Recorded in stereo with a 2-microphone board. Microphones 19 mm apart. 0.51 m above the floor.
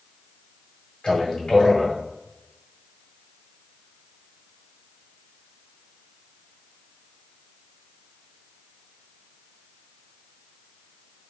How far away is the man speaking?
About 1.9 m.